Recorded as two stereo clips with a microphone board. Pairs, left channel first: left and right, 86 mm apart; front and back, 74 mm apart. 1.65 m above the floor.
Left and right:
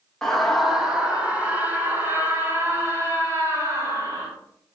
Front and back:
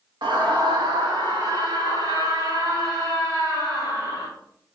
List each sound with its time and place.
0.2 s a scream: 170° left, 2 m; by 4.3 s 145° right, 5.5 m